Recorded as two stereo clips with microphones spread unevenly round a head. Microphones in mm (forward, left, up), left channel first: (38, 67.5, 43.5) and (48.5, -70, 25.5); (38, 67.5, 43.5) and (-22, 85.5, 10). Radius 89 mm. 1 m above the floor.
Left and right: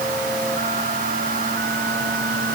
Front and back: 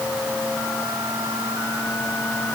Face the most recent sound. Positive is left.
No sound to turn to.